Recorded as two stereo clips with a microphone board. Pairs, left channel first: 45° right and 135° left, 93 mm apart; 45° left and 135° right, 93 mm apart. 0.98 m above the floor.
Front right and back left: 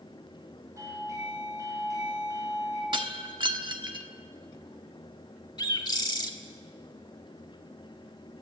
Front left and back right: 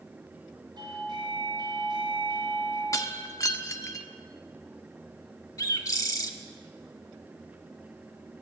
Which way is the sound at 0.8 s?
170° right.